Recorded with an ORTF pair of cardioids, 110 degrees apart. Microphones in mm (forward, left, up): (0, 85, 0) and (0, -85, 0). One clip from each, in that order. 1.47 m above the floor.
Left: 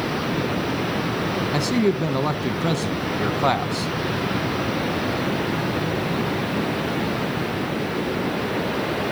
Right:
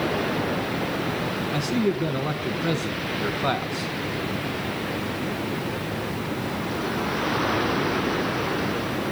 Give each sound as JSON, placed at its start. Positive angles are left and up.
{"t": 1.5, "sound": "a man speaking", "azimuth_deg": 45, "distance_m": 1.4}